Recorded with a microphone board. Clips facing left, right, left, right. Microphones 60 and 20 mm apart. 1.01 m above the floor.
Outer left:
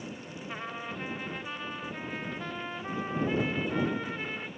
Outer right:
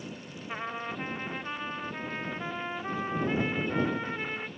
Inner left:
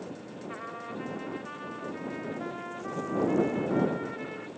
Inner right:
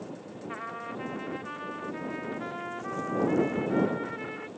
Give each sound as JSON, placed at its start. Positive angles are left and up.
{"t": 0.5, "sound": "a trumpet", "side_deg": -15}